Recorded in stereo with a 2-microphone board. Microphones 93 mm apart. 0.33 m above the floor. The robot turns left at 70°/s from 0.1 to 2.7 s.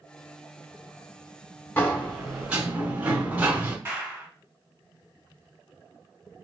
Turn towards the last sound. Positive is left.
turn(degrees=-25)  # may be behind; listen again after turning